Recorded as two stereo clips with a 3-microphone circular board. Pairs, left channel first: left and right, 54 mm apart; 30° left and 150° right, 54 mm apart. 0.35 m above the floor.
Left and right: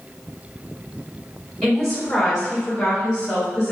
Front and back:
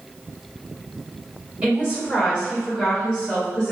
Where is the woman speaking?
155° left, 1.6 m; by 3.7 s 20° left, 1.5 m.